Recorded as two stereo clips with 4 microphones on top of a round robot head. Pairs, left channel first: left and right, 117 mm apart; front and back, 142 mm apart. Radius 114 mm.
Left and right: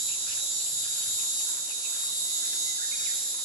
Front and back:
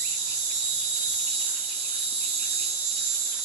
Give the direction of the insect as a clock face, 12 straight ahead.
6 o'clock.